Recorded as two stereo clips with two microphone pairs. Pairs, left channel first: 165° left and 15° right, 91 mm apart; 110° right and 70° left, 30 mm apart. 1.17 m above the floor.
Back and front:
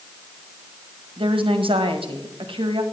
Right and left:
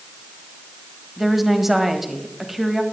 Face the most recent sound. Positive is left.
turn(degrees=-15)